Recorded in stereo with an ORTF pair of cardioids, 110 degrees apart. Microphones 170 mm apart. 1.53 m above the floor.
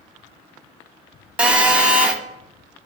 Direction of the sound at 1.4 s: 5° right.